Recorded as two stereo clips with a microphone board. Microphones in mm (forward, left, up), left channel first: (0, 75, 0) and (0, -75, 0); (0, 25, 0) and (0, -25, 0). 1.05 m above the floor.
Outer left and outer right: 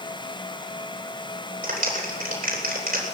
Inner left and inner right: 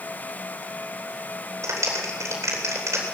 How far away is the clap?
About 3.5 m.